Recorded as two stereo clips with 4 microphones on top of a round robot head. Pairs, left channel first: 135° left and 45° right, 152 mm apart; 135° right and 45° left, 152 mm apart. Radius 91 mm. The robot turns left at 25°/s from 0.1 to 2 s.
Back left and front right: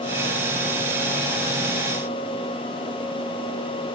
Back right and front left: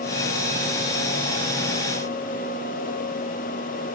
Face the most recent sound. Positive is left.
No sound to turn to.